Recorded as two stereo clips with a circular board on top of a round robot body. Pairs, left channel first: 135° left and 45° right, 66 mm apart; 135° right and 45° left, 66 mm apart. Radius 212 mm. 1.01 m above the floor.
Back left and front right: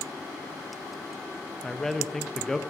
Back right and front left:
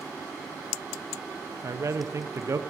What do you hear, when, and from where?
1.6 s a man speaking: 55° left, 1.1 m